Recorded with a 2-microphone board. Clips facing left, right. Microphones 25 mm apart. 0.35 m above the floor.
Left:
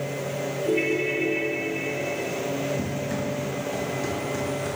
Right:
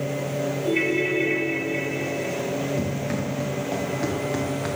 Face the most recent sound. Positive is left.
turn(degrees=-80)